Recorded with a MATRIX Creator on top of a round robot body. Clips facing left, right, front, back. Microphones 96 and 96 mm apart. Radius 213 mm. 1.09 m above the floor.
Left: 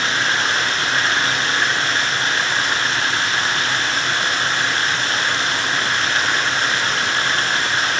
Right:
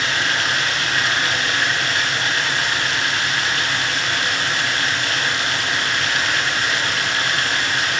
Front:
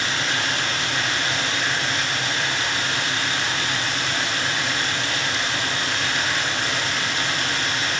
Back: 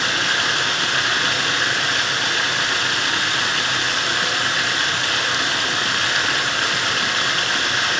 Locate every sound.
0.0 s running water: 150° left, 5 m